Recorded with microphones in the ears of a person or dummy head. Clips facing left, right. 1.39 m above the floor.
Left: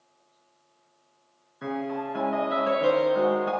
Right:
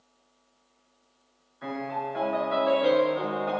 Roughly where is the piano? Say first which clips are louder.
Left 3 dB; left.